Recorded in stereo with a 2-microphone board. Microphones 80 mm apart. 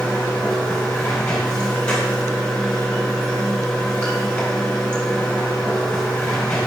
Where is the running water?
15° left (ahead or behind), 2.5 m.